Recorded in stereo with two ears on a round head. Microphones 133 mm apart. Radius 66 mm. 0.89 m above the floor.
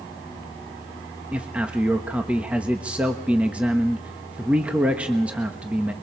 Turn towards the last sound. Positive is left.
turn(degrees=-10)  # may be behind; listen again after turning